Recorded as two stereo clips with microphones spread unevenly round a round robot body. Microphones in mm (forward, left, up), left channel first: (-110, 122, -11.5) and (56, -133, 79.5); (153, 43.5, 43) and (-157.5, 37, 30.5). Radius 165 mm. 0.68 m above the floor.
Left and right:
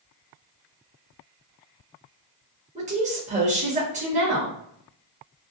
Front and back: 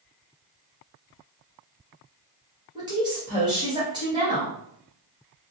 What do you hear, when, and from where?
2.8 s a woman speaking: 130° right, 1.1 m